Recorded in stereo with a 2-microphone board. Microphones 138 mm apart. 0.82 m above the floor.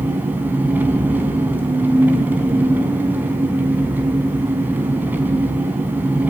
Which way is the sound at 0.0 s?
15° right (ahead or behind).